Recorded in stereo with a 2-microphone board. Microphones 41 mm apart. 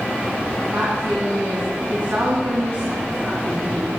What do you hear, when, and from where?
0.7 s a woman speaking: 70° right (ahead or behind), 4.5 m